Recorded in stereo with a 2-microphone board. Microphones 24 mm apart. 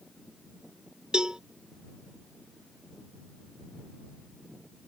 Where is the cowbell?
30° right (ahead or behind).